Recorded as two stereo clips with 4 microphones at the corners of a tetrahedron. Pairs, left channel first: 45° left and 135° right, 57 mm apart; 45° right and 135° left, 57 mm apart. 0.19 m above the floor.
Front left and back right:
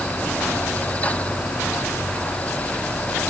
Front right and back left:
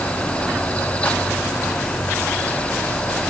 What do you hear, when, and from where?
Only background noise.